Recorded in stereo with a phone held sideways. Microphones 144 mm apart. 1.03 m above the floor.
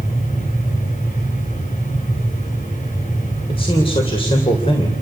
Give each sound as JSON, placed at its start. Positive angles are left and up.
{"t": 0.0, "sound": "a fan", "side_deg": 65, "distance_m": 6.0}
{"t": 3.5, "sound": "a man speaking", "side_deg": 40, "distance_m": 3.5}